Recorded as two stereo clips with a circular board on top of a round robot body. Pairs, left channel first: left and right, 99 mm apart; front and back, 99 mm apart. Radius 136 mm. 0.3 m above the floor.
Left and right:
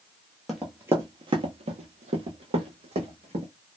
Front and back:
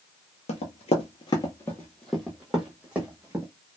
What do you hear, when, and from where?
0.5 s running footsteps: straight ahead, 0.6 m; by 3.5 s 105° right, 1.3 m